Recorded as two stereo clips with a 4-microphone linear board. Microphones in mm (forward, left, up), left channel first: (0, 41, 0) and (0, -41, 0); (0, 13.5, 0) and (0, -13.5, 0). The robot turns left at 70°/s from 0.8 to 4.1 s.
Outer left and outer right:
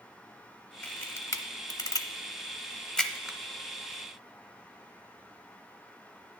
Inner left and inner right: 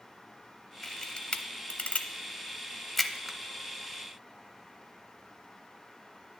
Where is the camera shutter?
15° left (ahead or behind), 0.7 m; by 3.4 s 10° right (ahead or behind), 0.7 m.